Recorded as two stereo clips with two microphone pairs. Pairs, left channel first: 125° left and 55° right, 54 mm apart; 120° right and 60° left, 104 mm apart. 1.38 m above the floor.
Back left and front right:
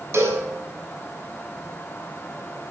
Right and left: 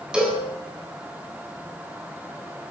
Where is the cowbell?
20° right, 7.5 m.